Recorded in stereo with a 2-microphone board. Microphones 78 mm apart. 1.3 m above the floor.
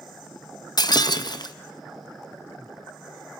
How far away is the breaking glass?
About 0.8 m.